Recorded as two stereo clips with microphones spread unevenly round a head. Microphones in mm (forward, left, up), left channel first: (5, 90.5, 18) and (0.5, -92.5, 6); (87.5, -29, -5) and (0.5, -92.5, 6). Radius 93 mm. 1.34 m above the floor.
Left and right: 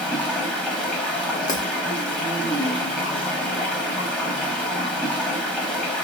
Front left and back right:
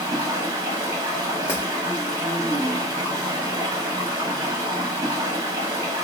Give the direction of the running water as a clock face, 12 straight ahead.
6 o'clock.